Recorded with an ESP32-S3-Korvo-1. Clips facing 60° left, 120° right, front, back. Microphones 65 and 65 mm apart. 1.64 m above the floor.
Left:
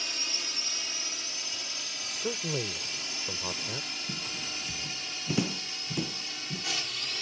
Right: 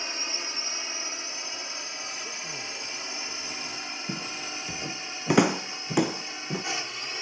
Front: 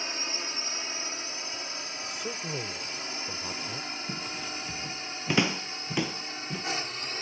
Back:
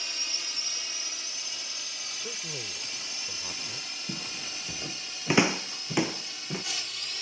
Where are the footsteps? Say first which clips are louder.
Right 5 dB, front 3 dB; 110° right.